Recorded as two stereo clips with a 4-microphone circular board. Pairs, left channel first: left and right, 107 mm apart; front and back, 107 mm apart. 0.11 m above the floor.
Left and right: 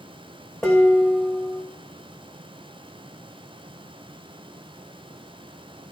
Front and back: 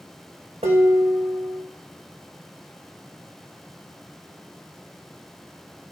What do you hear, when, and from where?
0.6 s dishes clattering: 175° left, 5.5 m